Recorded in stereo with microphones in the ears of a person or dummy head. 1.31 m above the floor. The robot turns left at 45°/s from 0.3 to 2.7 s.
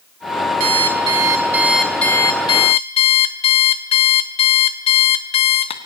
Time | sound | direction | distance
0.6 | an alarm clock | 130° right | 1.2 m